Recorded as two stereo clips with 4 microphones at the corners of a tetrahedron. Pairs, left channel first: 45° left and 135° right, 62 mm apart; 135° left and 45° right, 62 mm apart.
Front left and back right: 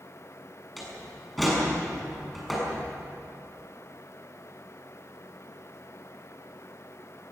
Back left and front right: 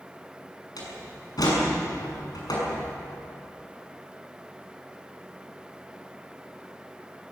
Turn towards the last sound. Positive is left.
turn(degrees=135)